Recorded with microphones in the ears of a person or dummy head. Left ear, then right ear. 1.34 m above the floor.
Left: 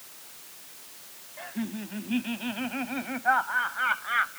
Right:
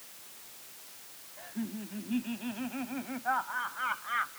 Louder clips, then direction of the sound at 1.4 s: Left 5 dB; 30° left (ahead or behind).